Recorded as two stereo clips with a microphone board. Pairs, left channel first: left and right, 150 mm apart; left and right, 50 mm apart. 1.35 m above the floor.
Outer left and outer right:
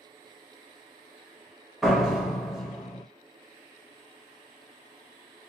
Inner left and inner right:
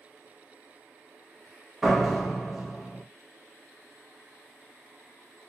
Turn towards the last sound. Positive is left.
turn(degrees=0)  # may be behind; listen again after turning